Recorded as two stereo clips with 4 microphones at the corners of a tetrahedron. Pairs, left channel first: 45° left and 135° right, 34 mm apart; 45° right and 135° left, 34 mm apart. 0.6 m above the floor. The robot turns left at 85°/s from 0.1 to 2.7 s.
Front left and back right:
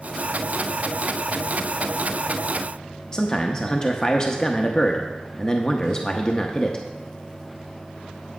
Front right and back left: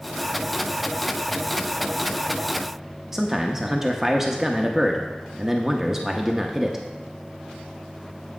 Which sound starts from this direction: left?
A man speaking, at 3.1 s.